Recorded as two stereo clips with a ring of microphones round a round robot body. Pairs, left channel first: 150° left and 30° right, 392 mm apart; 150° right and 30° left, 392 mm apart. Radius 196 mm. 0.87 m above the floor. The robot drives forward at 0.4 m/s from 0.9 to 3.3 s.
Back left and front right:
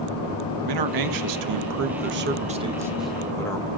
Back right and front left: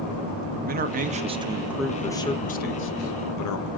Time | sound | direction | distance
0.7 | a man speaking | 35° right | 0.9 m